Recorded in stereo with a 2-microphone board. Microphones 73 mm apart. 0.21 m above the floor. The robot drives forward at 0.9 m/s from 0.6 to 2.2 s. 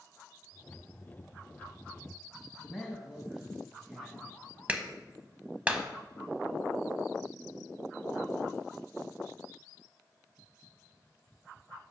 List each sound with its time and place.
2.6 s a man speaking: 5° right (ahead or behind), 1.2 m
4.7 s a clap: 20° right (ahead or behind), 0.7 m